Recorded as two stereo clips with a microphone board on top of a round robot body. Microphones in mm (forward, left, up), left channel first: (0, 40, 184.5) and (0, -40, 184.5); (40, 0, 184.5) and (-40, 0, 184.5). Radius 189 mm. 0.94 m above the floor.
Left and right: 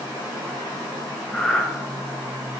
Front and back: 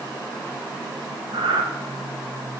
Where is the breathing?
Straight behind, 1.5 m.